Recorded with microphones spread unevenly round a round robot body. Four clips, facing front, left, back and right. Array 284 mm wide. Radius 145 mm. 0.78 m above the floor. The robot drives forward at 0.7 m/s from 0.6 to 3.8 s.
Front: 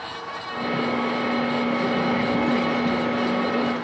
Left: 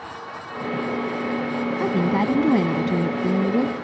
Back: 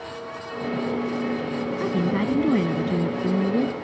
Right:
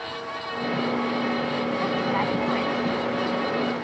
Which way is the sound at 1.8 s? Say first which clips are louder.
Left 6 dB, front 1 dB; 120° left.